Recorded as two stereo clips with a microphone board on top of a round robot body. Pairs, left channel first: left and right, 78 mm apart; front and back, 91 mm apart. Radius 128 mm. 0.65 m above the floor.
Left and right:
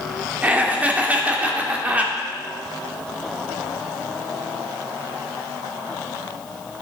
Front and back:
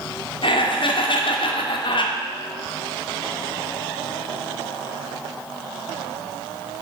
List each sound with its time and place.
0.4 s laughter: 20° right, 2 m